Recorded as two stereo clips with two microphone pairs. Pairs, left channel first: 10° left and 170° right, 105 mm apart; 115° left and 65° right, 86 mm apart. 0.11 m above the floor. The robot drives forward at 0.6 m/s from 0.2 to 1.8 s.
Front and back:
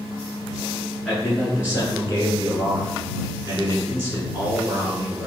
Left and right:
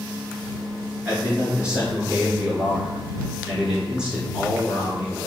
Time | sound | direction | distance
1.1 | a man speaking | 75° right | 1.1 m